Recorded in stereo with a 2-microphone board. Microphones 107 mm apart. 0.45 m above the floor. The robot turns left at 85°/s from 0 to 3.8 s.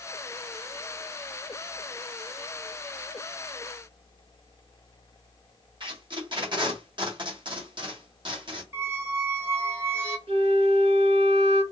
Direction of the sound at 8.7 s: 25° right (ahead or behind).